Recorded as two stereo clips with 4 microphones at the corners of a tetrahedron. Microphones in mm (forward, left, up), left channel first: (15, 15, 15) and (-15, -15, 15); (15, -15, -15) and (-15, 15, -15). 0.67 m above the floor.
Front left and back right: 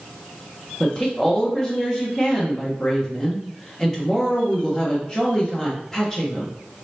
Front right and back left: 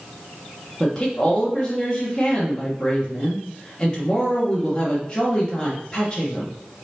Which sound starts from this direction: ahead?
A woman speaking, at 0.8 s.